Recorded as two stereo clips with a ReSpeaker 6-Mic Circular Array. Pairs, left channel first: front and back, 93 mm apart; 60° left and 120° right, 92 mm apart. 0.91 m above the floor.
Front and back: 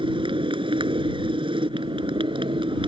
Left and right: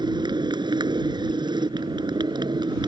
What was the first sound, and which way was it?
A motorcycle, 155° right.